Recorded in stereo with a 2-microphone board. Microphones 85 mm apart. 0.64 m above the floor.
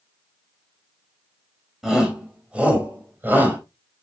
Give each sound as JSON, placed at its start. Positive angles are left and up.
{"t": 1.8, "sound": "a shout", "side_deg": -5, "distance_m": 4.0}